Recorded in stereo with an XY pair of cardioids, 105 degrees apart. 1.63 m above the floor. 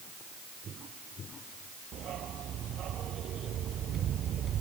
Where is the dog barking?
60° right.